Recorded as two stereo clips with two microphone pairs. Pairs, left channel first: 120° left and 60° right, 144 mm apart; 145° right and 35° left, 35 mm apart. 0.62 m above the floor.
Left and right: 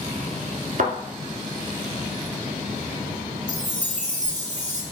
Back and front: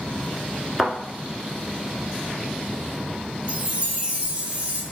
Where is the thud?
50° right, 1.0 m.